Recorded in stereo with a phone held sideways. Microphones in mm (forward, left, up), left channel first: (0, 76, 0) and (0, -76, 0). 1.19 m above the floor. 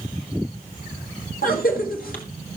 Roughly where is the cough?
Left.